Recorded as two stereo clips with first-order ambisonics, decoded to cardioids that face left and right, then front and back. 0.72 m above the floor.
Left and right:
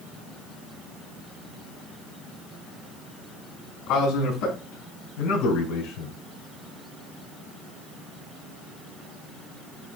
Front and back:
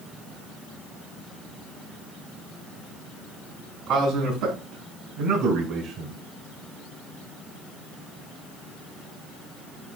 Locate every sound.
3.9 s a man speaking: 125° left, 5.5 m; by 6.2 s 110° left, 4.5 m